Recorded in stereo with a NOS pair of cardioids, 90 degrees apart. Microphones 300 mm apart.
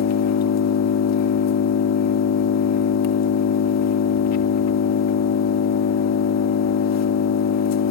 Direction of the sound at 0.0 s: 70° left.